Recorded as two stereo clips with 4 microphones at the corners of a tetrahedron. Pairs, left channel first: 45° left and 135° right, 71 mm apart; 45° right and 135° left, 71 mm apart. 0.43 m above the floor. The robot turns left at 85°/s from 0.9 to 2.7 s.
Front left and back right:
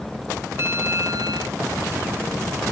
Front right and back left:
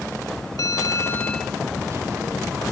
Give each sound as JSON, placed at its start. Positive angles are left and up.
{"t": 0.6, "sound": "a bell", "azimuth_deg": -85}